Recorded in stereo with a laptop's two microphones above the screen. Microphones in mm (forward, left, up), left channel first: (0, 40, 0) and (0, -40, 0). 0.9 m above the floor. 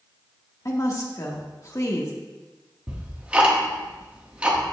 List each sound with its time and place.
0.7 s a woman speaking: 45° left (ahead or behind), 1.7 m
2.9 s ticking: 15° right (ahead or behind), 1.6 m